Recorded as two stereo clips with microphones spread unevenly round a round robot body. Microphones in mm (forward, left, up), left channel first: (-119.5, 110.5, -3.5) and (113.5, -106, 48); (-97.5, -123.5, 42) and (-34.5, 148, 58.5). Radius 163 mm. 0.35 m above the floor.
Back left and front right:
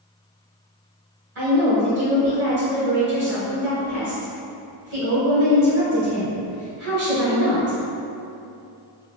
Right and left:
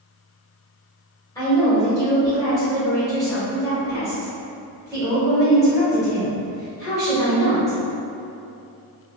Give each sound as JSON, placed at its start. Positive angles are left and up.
{"t": 1.4, "sound": "a woman speaking", "azimuth_deg": -55, "distance_m": 1.4}